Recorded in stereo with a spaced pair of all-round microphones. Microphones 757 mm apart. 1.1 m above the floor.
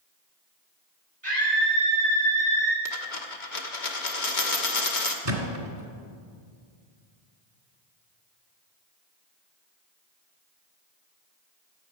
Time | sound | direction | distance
1.2 | a scream | 60° right (ahead or behind) | 6 m
2.9 | a dropped coin | 70° left (ahead or behind) | 1.4 m
5.2 | a thud | 45° right (ahead or behind) | 2 m